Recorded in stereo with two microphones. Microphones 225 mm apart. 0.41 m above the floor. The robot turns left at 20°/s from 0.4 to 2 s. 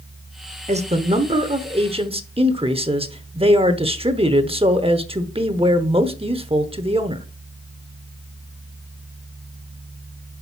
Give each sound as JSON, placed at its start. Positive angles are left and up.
{"t": 0.7, "sound": "a man speaking", "side_deg": -30, "distance_m": 0.8}